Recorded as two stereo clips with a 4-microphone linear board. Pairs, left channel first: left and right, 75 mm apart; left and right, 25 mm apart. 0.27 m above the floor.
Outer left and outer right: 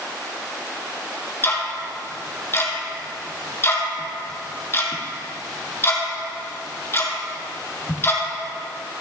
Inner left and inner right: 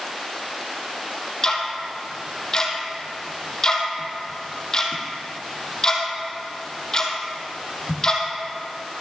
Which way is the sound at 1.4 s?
30° left (ahead or behind).